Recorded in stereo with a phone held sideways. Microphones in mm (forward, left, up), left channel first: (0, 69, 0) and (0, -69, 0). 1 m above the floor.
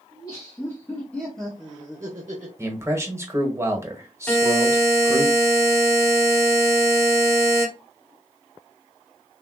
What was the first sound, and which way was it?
Laughter, 25° left (ahead or behind).